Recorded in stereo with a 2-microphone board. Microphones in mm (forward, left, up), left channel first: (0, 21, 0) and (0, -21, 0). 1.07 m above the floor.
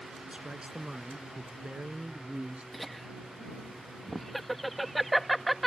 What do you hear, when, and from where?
0.3 s a man speaking: 20° right (ahead or behind); by 2.6 s 30° right (ahead or behind)
2.7 s laughter: centre (ahead or behind)